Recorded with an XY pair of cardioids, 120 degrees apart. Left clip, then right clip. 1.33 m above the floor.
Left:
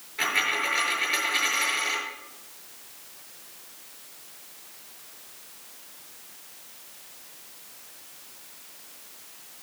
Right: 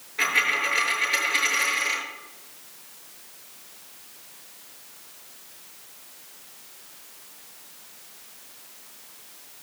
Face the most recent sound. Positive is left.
turn(degrees=-10)